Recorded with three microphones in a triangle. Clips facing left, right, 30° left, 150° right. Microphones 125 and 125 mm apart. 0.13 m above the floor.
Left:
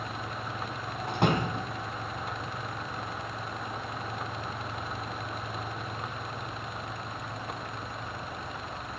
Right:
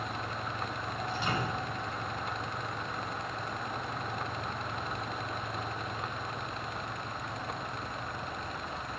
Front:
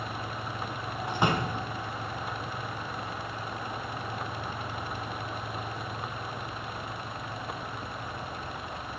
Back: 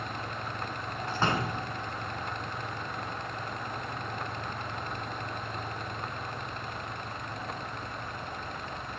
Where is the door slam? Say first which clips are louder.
Left 7 dB, front 2 dB; 105° left, 3 m.